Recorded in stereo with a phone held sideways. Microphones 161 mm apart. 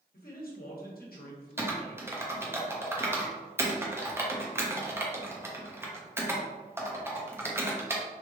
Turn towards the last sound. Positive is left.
turn(degrees=-15)  # may be behind; listen again after turning